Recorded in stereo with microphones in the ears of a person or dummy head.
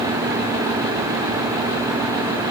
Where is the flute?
I don't hear a flute.